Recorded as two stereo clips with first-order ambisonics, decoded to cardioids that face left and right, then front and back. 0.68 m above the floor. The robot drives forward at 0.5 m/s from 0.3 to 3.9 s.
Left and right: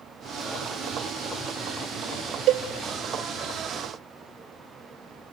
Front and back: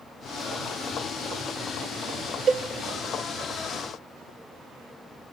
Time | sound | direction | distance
2.5 | a cowbell | 120° right | 0.8 m